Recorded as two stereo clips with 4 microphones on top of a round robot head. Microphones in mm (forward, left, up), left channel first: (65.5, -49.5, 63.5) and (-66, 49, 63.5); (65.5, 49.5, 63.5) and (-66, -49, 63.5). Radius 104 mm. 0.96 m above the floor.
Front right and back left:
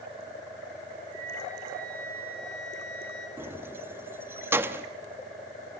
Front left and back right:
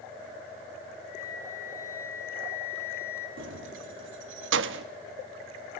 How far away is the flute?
About 4 m.